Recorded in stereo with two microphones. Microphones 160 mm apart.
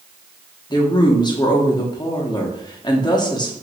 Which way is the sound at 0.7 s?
25° left (ahead or behind).